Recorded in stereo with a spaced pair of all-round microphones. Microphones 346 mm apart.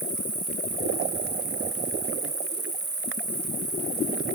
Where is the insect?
50° right (ahead or behind).